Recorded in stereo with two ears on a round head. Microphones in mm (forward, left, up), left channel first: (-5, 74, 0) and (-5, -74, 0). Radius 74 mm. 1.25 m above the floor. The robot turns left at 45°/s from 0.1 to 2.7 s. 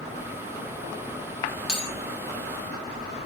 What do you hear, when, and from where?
1.7 s a bell: 5° left (ahead or behind), 0.8 m; by 1.9 s centre (ahead or behind), 0.8 m